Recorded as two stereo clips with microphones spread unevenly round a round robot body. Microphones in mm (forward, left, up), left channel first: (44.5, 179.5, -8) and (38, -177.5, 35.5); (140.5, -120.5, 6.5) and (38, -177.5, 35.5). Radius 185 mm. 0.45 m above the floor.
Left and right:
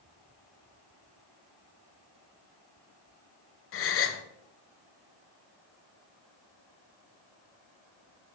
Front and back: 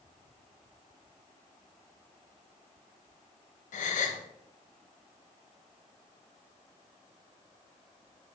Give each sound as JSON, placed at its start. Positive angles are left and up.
{"t": 3.7, "sound": "a gasp", "azimuth_deg": 30, "distance_m": 0.6}